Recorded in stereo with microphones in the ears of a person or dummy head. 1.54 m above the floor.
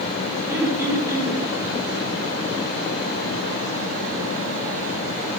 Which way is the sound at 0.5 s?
15° right (ahead or behind).